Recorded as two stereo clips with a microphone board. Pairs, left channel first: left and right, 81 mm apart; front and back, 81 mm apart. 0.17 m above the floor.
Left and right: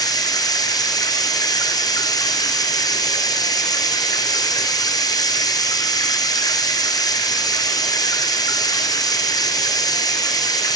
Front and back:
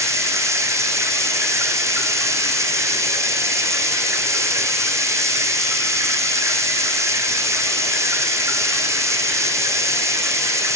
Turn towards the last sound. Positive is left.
turn(degrees=125)